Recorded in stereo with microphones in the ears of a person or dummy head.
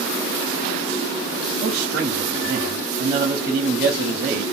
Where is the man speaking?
40° right (ahead or behind), 0.6 m.